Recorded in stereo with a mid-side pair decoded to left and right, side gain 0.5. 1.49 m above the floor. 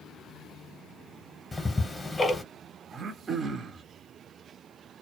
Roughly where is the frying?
No frying in this recording.